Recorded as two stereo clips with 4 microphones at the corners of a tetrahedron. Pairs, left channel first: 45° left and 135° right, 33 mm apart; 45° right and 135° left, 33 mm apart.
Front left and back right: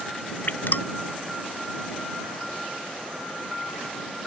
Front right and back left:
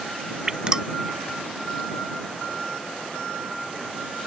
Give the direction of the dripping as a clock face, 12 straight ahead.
10 o'clock.